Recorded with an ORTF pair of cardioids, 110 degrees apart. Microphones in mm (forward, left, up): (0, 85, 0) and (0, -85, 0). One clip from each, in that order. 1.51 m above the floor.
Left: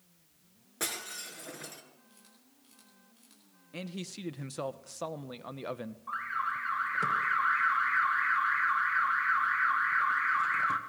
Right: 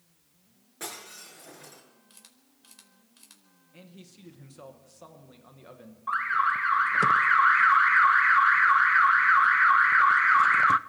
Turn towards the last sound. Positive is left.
turn(degrees=-45)